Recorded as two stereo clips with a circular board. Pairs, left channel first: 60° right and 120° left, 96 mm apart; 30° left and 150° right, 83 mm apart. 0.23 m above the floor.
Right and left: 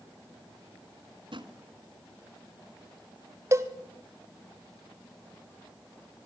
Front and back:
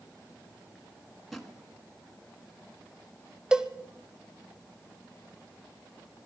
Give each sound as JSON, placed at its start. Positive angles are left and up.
{"t": 1.3, "sound": "a drawer", "azimuth_deg": 120, "distance_m": 1.5}
{"t": 3.5, "sound": "a cowbell", "azimuth_deg": 135, "distance_m": 0.8}